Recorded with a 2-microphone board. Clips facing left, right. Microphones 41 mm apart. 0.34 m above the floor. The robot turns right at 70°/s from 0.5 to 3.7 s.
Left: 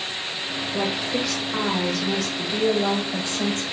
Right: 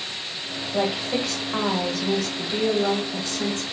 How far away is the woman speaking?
About 1.2 m.